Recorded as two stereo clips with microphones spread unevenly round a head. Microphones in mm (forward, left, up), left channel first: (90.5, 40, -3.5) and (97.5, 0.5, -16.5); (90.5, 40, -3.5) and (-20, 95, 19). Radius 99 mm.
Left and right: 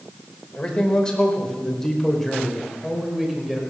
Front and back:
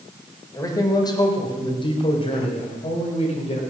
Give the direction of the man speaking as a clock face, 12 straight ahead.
11 o'clock.